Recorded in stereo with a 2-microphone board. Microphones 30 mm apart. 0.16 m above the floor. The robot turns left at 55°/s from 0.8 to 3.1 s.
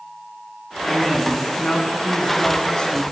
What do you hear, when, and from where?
0.9 s a man speaking: centre (ahead or behind), 1.5 m; by 3.0 s 25° left (ahead or behind), 1.5 m